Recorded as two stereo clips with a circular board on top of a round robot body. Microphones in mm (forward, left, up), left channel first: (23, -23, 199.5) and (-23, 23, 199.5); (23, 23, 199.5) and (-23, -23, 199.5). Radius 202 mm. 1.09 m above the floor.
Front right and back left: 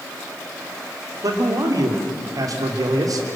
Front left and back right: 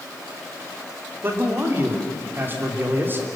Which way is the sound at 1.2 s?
165° left.